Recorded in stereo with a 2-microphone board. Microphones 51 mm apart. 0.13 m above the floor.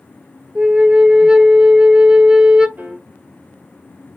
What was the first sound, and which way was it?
A flute, 15° right (ahead or behind).